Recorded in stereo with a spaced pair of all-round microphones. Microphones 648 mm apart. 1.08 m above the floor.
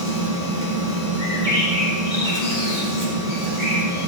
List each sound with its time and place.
0.0 s a machine running: 85° right, 5 m
1.2 s a bird: 15° left (ahead or behind), 5.5 m